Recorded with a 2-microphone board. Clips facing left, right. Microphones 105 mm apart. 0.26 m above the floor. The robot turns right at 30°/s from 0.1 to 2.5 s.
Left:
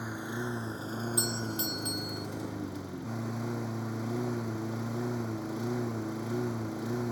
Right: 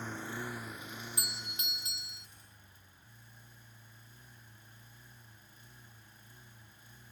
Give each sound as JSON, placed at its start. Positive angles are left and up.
{"t": 0.0, "sound": "a lawn mower", "azimuth_deg": 15}
{"t": 1.2, "sound": "a doorbell", "azimuth_deg": 25}